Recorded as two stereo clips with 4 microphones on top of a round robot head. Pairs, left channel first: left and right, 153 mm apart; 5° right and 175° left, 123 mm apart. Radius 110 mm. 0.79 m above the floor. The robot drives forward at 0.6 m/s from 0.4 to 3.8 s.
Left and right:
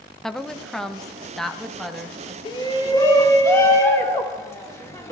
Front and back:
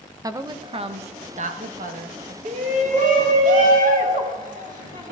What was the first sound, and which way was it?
A woman speaking, 175° left.